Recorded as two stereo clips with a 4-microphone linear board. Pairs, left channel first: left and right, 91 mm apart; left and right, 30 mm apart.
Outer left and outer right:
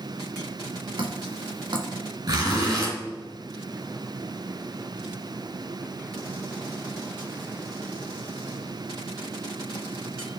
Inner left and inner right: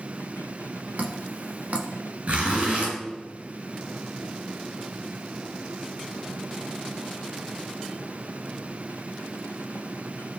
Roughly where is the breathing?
No breathing in this recording.